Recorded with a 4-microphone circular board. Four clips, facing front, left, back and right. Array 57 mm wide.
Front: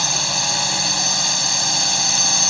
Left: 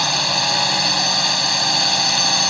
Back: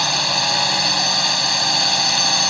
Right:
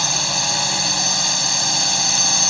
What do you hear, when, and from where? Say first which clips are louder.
0.0 s a drone: left 3 dB, back 4 dB; 140° left